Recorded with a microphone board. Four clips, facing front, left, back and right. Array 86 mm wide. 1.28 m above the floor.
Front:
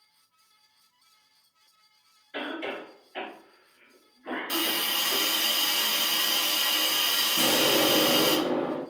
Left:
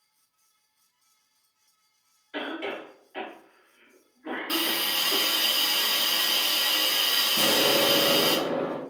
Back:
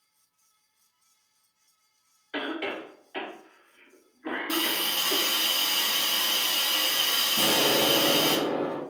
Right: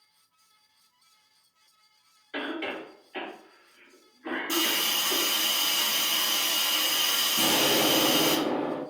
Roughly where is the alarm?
I don't hear an alarm.